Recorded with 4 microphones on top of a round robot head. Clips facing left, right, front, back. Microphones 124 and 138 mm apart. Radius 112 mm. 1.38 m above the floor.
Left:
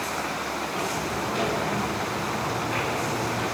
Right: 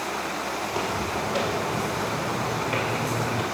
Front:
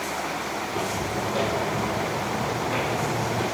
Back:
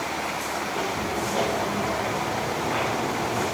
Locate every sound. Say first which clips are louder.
0.6 s footsteps: right 2 dB, even; 95° right, 3 m; by 3.4 s 80° right, 1.9 m